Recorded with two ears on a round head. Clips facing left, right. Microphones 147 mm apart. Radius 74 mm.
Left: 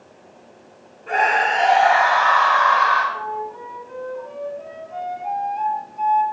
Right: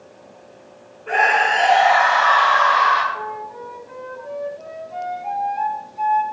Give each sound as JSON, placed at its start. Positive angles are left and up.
{"t": 1.1, "sound": "a scream", "side_deg": 0, "distance_m": 5.0}
{"t": 3.1, "sound": "a flute", "side_deg": -5, "distance_m": 2.0}